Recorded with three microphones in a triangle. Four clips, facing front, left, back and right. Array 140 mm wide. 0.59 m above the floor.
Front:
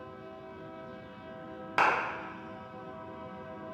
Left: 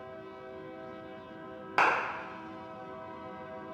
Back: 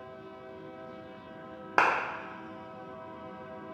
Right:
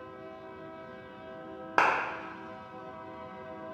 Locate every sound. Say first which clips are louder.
1.8 s a clap: right 1 dB, back 1 dB; 145° right, 0.7 m